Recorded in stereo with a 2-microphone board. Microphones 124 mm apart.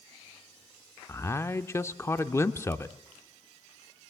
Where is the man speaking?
20° left (ahead or behind), 0.7 m.